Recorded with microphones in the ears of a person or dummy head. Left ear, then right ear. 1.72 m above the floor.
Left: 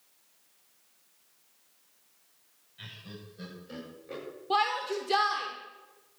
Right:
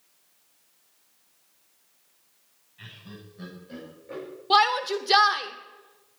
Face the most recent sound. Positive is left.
turn(degrees=-40)  # may be behind; listen again after turning